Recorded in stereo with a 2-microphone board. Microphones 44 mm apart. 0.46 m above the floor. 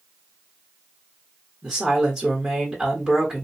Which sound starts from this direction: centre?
A woman speaking, at 1.6 s.